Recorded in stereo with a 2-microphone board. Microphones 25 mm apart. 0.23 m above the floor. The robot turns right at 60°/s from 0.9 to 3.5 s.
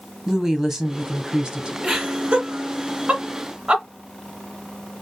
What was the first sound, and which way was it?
A woman speaking, 145° right.